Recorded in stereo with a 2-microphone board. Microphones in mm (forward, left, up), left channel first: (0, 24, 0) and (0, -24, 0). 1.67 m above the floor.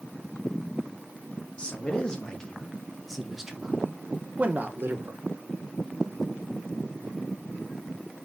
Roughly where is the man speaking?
Left.